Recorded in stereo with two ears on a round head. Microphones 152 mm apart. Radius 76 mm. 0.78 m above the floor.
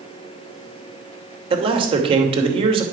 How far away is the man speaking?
About 3 m.